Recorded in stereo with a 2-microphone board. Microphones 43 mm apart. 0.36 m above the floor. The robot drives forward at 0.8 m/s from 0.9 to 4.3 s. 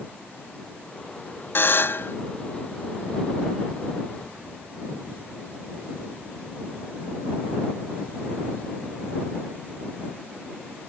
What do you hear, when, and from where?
1.6 s a buzzer: 55° left (ahead or behind); by 2.2 s 65° left (ahead or behind)